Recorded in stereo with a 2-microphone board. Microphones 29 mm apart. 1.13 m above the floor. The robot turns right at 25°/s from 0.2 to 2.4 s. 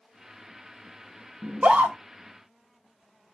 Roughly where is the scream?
Right.